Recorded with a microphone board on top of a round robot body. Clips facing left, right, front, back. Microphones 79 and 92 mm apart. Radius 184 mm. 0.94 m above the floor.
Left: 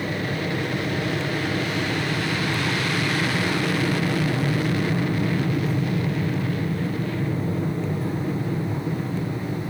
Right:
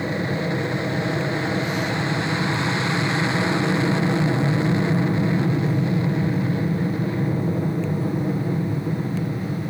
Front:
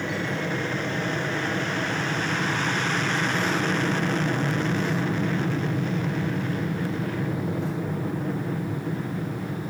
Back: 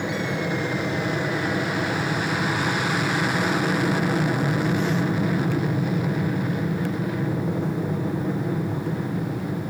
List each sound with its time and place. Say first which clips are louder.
0.0 s an aircraft: right 2 dB, back 2 dB; 110° right